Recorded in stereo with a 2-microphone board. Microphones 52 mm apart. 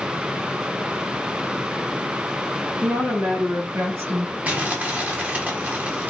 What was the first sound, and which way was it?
A woman speaking, 60° right (ahead or behind).